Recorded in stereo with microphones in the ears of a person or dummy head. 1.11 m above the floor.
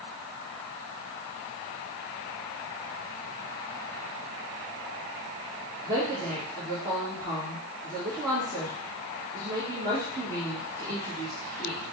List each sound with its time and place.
5.8 s a woman speaking: 15° right (ahead or behind), 1.2 m